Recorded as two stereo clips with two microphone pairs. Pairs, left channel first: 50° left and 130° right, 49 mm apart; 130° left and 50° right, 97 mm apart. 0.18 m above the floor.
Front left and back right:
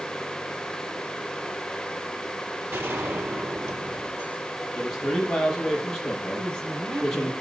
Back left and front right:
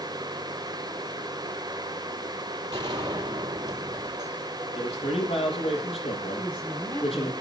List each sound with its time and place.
2.7 s a gunshot: 95° right, 5 m
4.8 s a man speaking: 135° left, 6.5 m
6.4 s a woman speaking: 160° right, 4 m